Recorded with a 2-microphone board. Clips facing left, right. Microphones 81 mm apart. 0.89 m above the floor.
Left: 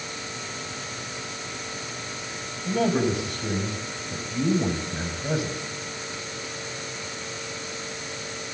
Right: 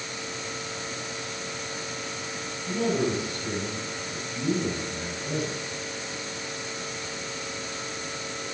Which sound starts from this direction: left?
A man speaking, at 2.6 s.